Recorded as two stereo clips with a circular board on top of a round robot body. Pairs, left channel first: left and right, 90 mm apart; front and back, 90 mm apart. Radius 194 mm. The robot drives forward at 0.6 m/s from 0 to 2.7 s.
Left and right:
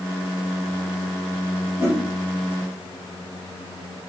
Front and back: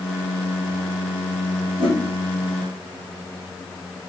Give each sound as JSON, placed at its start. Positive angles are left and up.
{"t": 1.8, "sound": "a whoosh", "azimuth_deg": -175, "distance_m": 2.5}